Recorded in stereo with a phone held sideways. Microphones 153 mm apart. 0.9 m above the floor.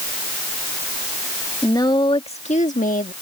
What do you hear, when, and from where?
1.6 s a woman speaking: 20° left (ahead or behind); by 3.1 s 65° left (ahead or behind)